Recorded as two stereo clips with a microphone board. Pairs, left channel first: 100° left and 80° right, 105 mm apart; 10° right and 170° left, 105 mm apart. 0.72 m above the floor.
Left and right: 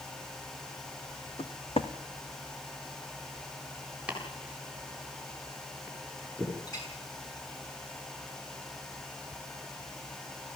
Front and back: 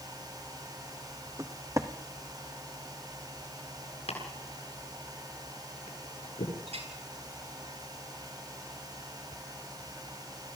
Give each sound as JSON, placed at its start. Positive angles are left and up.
{"t": 1.4, "sound": "footsteps", "azimuth_deg": 115, "distance_m": 2.0}
{"t": 4.1, "sound": "chopping", "azimuth_deg": 0, "distance_m": 8.5}
{"t": 6.7, "sound": "a clink", "azimuth_deg": 155, "distance_m": 8.5}